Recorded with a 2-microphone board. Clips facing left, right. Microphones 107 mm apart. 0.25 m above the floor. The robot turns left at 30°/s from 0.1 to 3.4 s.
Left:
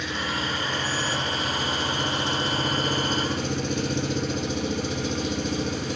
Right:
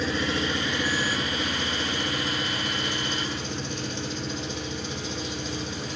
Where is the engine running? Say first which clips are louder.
Right 3 dB; 140° right, 1.3 m; by 6.0 s 120° left, 1.3 m.